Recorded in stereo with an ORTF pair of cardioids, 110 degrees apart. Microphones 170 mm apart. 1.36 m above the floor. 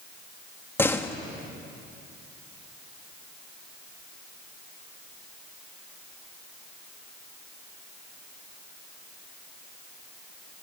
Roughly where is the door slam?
Ahead.